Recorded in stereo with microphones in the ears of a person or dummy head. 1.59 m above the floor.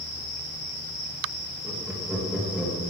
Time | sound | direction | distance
1.6 | laughter | 15° right (ahead or behind) | 3 m